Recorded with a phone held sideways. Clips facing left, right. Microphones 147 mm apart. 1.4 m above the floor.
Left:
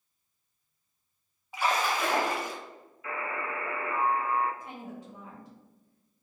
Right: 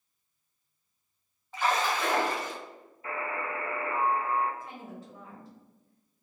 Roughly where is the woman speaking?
Centre.